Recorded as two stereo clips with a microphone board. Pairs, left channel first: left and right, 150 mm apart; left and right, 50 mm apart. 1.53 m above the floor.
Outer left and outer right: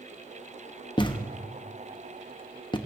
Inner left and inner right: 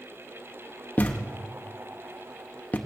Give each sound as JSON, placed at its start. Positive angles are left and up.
{"t": 1.0, "sound": "a thud", "side_deg": 30, "distance_m": 0.9}